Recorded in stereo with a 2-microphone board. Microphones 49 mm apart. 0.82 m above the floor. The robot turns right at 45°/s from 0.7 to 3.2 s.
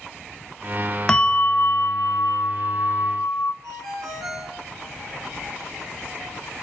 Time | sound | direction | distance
1.1 | a bell | 15° left | 0.6 m
3.6 | a ringtone | 75° right (ahead or behind) | 4 m